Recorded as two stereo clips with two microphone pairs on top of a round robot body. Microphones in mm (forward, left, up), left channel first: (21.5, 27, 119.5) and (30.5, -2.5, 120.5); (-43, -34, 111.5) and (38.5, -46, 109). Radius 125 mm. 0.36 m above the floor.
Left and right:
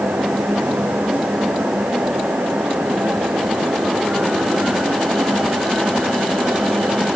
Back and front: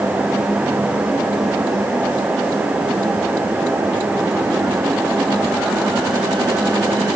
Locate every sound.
Only background noise.